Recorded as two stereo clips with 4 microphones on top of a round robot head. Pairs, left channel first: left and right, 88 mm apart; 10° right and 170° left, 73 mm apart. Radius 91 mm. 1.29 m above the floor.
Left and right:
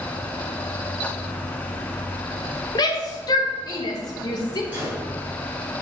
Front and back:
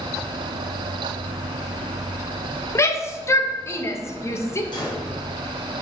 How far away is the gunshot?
About 2.5 m.